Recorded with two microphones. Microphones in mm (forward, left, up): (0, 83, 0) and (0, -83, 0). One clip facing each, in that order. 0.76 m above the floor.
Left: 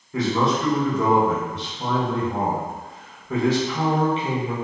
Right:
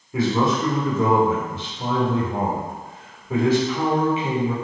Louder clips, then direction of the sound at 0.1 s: Right 1 dB; 10° right (ahead or behind).